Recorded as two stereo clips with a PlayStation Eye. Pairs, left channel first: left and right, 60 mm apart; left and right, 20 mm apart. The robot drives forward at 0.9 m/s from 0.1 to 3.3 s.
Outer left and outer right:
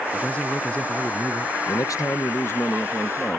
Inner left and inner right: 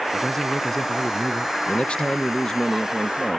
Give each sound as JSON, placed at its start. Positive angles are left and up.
{"t": 0.1, "sound": "a man speaking", "side_deg": 20}
{"t": 1.7, "sound": "a man speaking", "side_deg": 75}